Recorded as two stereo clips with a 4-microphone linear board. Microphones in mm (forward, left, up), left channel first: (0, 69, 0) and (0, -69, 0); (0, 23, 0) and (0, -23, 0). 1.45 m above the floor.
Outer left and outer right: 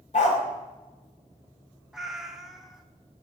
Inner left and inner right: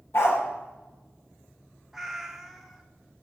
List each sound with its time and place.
0.1 s a dog barking: 55° left (ahead or behind), 1.9 m
1.9 s a cat meowing: 5° right (ahead or behind), 0.9 m